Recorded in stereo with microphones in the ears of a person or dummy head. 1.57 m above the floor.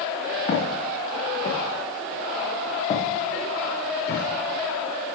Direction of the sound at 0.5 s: 40° left (ahead or behind).